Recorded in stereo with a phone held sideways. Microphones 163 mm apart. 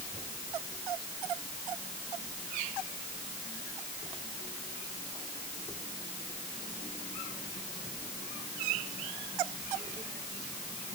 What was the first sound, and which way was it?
Only background noise.